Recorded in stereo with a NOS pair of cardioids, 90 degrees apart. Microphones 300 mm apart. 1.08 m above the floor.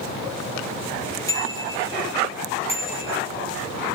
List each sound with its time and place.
1.3 s a bicycle bell: 10° left, 8.5 m; by 3.1 s 20° left, 6.5 m